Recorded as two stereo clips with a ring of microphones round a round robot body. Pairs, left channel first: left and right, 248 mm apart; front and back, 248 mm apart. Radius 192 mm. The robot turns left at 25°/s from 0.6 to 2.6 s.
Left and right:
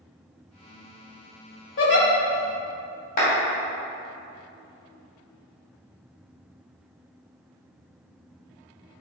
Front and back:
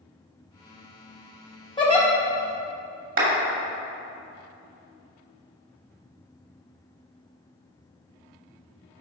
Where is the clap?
145° left, 2.5 m.